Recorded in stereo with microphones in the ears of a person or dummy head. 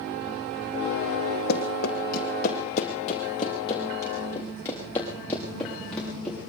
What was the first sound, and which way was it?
Running footsteps, 55° left (ahead or behind).